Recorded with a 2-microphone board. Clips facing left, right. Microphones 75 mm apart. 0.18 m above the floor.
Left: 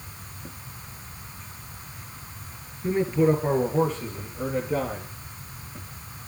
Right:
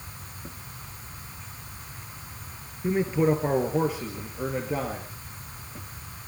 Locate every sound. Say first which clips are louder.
2.8 s a man speaking: left 2 dB; 10° right (ahead or behind), 3 m; by 5.1 s 5° right (ahead or behind), 4 m